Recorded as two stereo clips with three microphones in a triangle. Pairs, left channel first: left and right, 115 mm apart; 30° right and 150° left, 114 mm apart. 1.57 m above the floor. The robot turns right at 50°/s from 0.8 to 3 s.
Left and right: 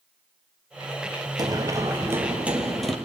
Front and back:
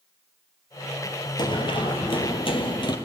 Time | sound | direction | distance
1.4 | running footsteps | 50° right | 2 m